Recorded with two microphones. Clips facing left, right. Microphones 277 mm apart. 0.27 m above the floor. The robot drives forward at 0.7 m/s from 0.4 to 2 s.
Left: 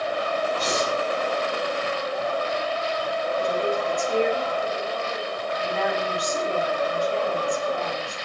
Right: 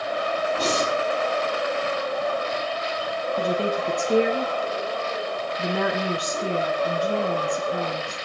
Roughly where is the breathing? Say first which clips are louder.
Right 1 dB; right.